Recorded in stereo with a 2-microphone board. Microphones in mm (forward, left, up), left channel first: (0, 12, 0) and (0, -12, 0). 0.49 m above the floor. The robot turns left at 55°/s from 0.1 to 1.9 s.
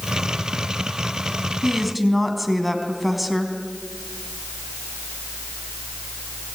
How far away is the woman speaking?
About 4 m.